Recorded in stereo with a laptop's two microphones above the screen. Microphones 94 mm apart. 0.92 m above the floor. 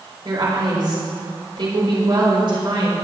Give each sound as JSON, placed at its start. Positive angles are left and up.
{"t": 0.2, "sound": "a woman speaking", "side_deg": -55, "distance_m": 3.5}